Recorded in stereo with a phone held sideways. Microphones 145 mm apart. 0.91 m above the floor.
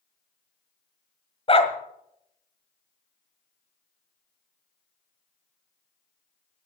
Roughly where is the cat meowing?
No cat meowing in this recording.